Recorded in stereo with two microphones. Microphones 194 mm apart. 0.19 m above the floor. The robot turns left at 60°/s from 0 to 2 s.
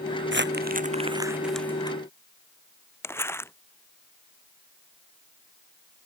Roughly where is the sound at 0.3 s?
Right.